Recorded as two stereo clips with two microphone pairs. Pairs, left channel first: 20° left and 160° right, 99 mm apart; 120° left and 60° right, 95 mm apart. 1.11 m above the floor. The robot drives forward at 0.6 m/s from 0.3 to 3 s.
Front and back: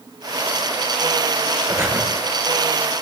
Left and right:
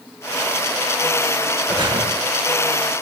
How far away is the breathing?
About 5 m.